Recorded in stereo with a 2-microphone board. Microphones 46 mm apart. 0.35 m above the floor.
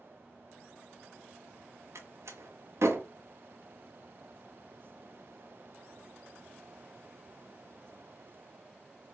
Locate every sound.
1.9 s a door slam: 70° right (ahead or behind), 1.5 m